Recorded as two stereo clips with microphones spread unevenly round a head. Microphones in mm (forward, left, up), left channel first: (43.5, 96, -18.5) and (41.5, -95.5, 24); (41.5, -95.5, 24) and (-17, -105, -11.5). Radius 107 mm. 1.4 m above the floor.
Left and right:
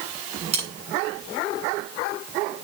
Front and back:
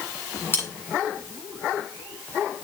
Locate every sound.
0.5 s cutlery clinking: 35° right, 9.5 m